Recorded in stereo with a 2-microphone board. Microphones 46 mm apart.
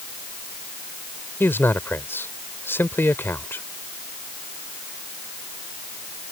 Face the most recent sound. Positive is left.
turn(degrees=55)  # may be behind; listen again after turning